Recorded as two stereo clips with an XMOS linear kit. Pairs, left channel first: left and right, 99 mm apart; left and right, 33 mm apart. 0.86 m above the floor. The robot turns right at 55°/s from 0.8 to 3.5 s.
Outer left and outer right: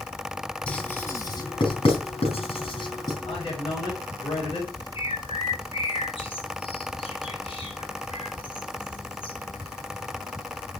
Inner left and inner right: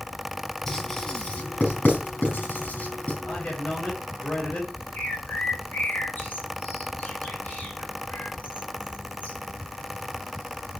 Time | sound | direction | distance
0.7 | writing | 10° left (ahead or behind) | 3.5 m
3.2 | a man speaking | 60° left (ahead or behind) | 4 m
5.0 | a bird | 60° left (ahead or behind) | 3.5 m